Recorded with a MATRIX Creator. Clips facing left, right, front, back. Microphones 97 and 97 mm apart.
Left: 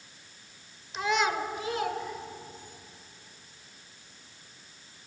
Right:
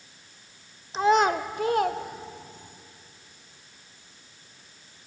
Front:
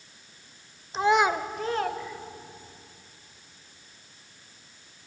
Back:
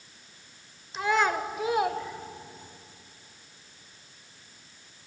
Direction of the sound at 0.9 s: 45° right.